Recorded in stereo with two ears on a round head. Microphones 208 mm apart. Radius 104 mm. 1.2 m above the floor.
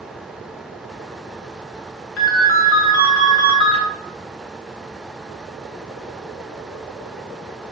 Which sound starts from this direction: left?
A ringtone, at 2.2 s.